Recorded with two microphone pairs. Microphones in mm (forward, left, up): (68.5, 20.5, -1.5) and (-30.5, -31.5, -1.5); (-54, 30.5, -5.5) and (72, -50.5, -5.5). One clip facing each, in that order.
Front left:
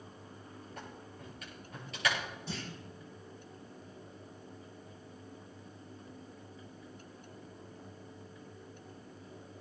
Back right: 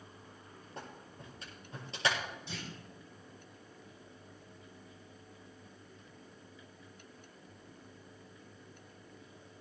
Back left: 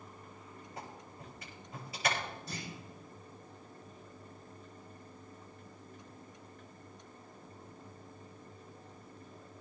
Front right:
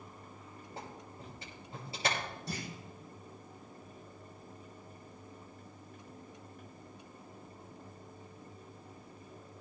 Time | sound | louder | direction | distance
0.8 | a clap | back right 2 dB, front right 1 dB | 90° right | 7.5 m
2.5 | a clunk | front left 3 dB, front right 3 dB | 20° right | 5.5 m